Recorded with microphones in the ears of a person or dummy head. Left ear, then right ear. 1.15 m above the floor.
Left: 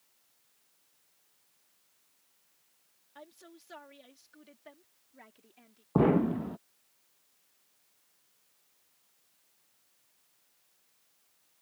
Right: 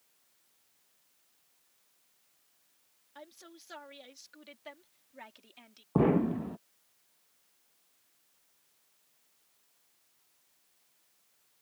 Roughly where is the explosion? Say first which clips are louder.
Left 1 dB; centre.